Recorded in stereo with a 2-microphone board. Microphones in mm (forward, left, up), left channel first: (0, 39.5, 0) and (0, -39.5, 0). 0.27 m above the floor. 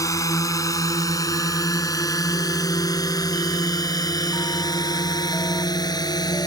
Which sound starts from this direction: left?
A drone, at 0.0 s.